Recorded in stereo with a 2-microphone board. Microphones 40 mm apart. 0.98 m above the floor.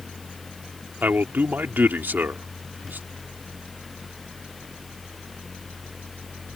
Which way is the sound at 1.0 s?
50° right (ahead or behind).